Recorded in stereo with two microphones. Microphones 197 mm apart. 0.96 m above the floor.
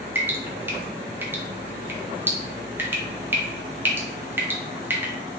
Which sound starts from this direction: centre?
Dripping, at 0.1 s.